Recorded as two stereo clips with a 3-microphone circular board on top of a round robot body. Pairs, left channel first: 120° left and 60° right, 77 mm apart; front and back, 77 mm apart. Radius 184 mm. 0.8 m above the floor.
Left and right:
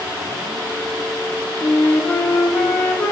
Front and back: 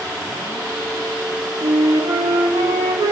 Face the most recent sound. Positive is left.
turn(degrees=-170)